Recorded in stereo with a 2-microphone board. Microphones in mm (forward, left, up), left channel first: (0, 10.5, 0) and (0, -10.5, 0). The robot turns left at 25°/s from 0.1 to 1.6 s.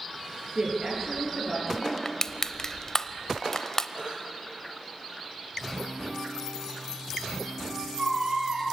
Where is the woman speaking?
40° right (ahead or behind), 6 m; by 1.9 s 15° right (ahead or behind), 6 m.